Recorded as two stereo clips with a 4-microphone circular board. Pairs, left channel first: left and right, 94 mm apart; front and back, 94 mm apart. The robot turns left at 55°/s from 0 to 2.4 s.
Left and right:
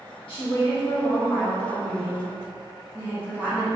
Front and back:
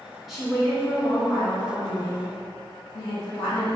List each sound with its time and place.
0.3 s a woman speaking: 95° left, 1.7 m; by 3.8 s 25° right, 1.7 m